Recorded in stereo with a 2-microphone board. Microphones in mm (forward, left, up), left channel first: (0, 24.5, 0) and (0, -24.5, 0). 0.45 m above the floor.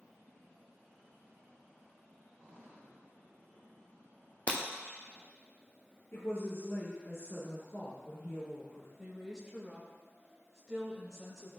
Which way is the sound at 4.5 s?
30° left (ahead or behind).